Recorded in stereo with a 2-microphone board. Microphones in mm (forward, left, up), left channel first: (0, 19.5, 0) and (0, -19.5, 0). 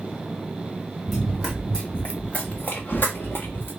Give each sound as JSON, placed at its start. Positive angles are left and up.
{"t": 1.1, "sound": "running footsteps", "side_deg": -5, "distance_m": 1.0}